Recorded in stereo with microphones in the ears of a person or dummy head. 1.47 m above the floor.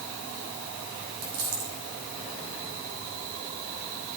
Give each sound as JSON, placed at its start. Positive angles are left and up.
{"t": 1.2, "sound": "a dropped coin", "side_deg": -65, "distance_m": 6.0}